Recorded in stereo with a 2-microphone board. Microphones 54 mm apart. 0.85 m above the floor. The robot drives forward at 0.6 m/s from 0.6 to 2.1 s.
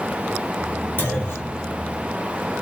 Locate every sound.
1.0 s a clunk: 40° left (ahead or behind), 2 m; by 1.6 s 45° left (ahead or behind), 1.8 m